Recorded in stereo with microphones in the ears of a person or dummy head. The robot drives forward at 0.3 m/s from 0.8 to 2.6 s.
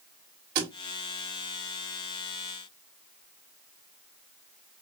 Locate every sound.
0.6 s a thud: 55° right (ahead or behind), 1.4 m